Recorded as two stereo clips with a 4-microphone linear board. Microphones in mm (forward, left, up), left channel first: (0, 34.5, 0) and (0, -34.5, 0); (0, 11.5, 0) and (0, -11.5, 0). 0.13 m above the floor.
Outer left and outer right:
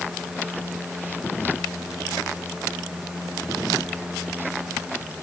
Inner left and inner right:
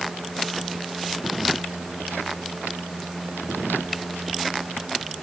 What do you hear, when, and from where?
Only background noise.